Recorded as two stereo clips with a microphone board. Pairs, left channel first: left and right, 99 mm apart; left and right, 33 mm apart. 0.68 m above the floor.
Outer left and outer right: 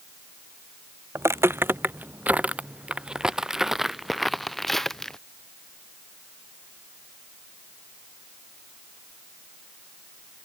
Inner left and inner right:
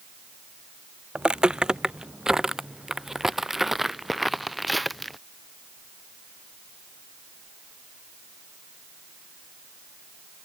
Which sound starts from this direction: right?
Footsteps, at 1.1 s.